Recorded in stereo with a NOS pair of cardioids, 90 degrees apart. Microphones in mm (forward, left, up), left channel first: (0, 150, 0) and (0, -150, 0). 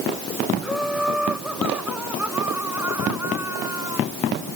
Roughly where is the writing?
I don't hear writing.